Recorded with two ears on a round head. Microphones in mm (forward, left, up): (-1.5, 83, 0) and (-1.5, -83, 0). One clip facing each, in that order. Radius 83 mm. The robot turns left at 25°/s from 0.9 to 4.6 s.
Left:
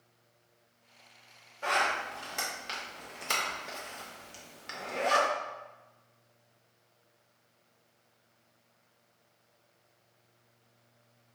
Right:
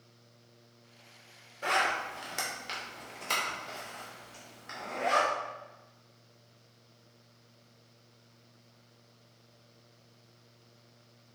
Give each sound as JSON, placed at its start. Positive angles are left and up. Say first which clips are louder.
{"t": 1.6, "sound": "a zipper", "louder": "even", "side_deg": -25, "distance_m": 0.7}